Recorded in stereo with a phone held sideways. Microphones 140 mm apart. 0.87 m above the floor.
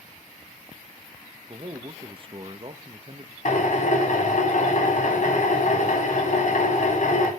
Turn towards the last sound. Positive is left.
turn(degrees=65)  # may be behind; listen again after turning